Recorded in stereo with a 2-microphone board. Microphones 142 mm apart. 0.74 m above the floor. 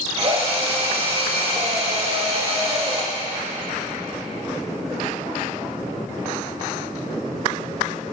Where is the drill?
45° right (ahead or behind), 1.6 m.